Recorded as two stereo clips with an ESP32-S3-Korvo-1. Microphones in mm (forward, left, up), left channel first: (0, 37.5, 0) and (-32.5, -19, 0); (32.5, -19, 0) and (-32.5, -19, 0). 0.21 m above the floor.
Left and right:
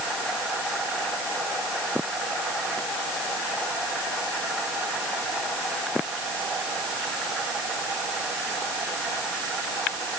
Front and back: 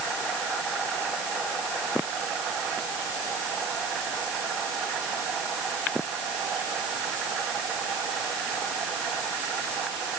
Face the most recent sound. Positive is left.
No sound to turn to.